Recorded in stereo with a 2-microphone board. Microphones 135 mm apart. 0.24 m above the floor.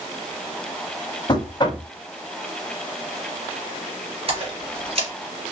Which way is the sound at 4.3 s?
45° right (ahead or behind).